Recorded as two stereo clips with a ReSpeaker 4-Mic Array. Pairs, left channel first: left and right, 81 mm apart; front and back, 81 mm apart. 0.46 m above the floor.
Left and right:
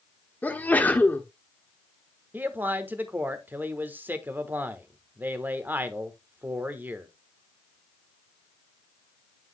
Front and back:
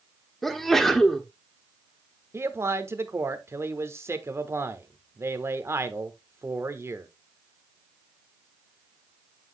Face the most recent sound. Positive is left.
turn(degrees=-145)